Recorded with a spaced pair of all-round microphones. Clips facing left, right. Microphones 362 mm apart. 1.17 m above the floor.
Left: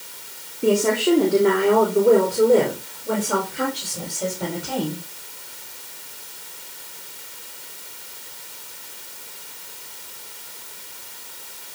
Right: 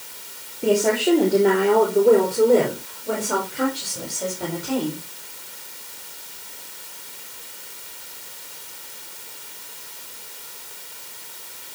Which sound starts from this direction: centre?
A woman speaking, at 0.6 s.